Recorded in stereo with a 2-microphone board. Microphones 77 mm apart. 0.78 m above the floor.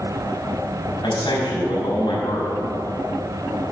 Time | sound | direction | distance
1.0 | a man speaking | 80° left | 5 m